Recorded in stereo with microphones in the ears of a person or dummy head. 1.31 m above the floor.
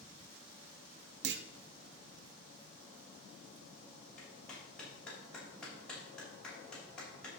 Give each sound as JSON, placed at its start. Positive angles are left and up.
{"t": 1.2, "sound": "a clunk", "side_deg": -55, "distance_m": 0.7}
{"t": 4.2, "sound": "a clap", "side_deg": 0, "distance_m": 6.0}